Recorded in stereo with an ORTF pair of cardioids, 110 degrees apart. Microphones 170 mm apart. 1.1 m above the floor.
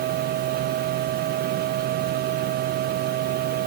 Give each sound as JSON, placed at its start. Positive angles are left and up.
{"t": 0.0, "sound": "a machine running", "azimuth_deg": -65}